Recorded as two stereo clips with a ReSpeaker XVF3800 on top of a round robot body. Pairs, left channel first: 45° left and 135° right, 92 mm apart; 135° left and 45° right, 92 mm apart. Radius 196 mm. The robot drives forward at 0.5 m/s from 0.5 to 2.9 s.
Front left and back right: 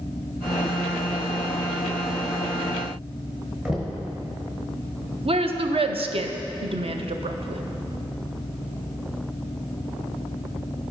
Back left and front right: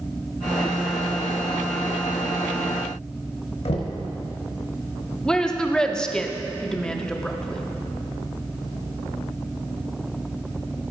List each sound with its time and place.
3.6 s knocking: 140° left, 0.9 m
5.2 s a woman speaking: 145° right, 0.7 m